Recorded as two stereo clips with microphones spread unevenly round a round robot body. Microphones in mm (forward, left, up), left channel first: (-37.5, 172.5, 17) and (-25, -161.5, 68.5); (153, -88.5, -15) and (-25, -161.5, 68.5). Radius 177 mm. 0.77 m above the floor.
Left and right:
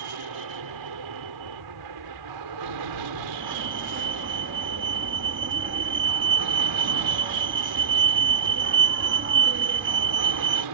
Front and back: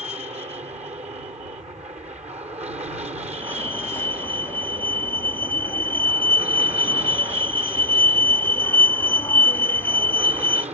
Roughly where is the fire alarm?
Ahead right.